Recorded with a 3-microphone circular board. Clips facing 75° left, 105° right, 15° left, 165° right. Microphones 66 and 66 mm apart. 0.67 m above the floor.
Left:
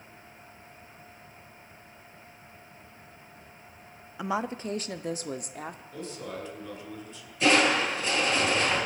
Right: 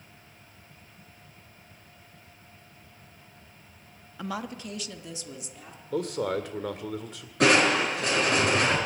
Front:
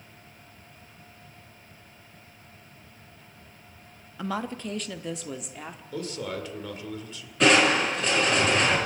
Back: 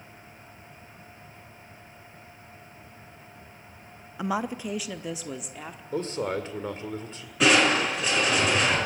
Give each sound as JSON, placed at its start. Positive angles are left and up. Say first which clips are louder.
{"t": 4.2, "sound": "a woman speaking", "louder": "left 4 dB, back 2 dB", "azimuth_deg": 135, "distance_m": 0.6}
{"t": 5.9, "sound": "a man speaking", "louder": "right 14 dB, back 5 dB", "azimuth_deg": -110, "distance_m": 1.8}
{"t": 7.4, "sound": "crushing", "louder": "right 2 dB, front 1 dB", "azimuth_deg": -80, "distance_m": 6.0}